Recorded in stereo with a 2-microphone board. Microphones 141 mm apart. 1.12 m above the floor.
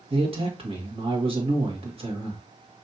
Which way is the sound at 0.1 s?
40° right (ahead or behind).